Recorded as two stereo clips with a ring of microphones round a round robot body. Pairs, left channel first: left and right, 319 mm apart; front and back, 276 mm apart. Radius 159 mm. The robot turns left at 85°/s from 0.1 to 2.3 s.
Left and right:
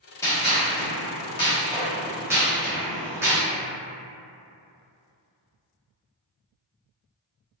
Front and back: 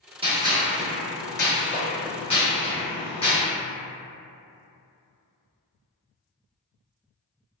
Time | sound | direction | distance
0.2 | a gunshot | 155° left | 1.0 m